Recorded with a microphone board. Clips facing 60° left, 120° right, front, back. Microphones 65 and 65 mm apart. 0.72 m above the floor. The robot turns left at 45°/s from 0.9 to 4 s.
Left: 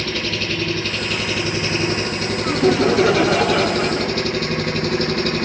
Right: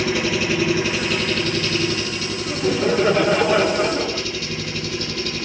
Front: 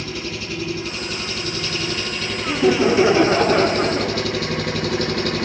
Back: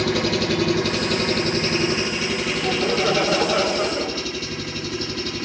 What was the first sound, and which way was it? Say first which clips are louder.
An engine running: right 4 dB, back 8 dB; 160° left.